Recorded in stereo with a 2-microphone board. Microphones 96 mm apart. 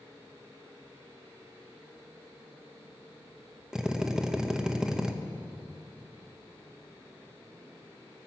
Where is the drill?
10° right (ahead or behind), 0.7 m.